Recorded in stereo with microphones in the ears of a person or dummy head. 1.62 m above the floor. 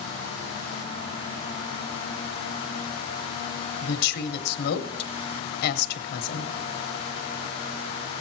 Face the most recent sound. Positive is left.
turn(degrees=55)  # may be behind; listen again after turning